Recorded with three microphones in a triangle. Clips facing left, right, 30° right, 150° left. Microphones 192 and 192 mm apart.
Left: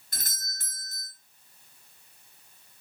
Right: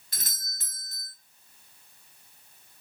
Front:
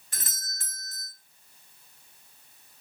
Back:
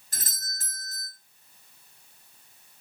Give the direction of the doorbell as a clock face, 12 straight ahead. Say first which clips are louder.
Left 1 dB, back 1 dB; 8 o'clock.